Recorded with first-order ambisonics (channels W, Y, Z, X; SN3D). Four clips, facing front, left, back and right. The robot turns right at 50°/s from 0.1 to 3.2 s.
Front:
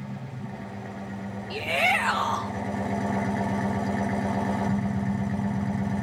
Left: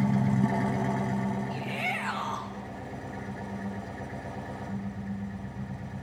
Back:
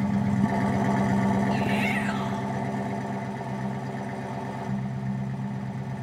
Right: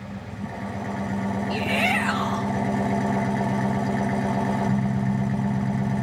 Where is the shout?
45° right, 0.8 m; by 2.5 s 5° left, 0.8 m.